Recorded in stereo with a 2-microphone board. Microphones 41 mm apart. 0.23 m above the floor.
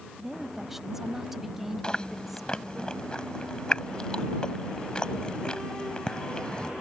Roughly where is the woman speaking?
Centre.